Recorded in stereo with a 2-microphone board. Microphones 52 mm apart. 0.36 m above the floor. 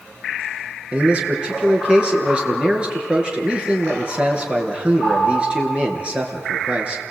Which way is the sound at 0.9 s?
20° right (ahead or behind).